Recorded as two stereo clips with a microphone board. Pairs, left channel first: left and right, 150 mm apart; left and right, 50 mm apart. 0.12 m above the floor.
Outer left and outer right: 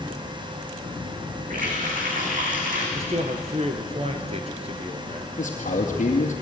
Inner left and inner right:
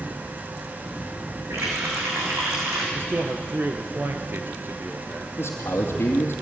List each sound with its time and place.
1.5 s a running tap: 75° right (ahead or behind), 5 m
3.0 s a man speaking: 50° right (ahead or behind), 1.7 m
5.4 s a man speaking: 60° left (ahead or behind), 2 m